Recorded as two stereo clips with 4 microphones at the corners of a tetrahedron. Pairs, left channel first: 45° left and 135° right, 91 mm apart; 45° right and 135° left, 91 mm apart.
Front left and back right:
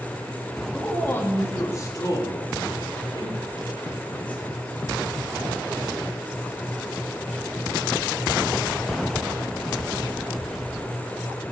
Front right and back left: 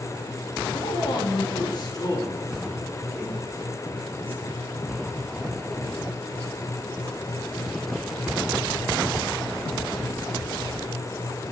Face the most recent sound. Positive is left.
turn(degrees=25)